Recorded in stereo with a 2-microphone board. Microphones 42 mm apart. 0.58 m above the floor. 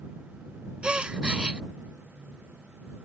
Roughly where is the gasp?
Right.